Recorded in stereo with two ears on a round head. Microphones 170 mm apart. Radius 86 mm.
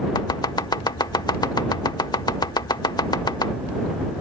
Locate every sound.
0.1 s chopping: 20° left (ahead or behind)